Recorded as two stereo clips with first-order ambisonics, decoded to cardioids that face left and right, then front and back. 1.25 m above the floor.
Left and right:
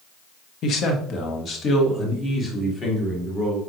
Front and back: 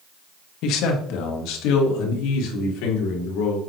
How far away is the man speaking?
About 1.1 m.